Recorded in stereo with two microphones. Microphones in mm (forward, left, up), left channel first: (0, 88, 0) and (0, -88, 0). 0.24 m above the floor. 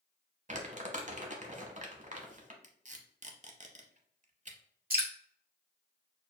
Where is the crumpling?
40° right (ahead or behind), 0.8 m.